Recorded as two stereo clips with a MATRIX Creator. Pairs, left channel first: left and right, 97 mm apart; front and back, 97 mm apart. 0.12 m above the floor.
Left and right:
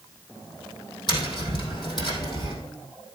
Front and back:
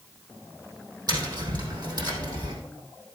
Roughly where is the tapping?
Behind left.